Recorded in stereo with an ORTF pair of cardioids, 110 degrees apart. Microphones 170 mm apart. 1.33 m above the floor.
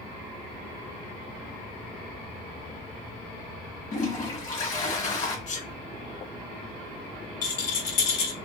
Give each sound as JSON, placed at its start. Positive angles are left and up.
{"t": 3.9, "sound": "a toilet flushing", "azimuth_deg": 45, "distance_m": 1.3}
{"t": 5.5, "sound": "a sneeze", "azimuth_deg": 45, "distance_m": 0.9}
{"t": 7.4, "sound": "a rattle", "azimuth_deg": 65, "distance_m": 1.3}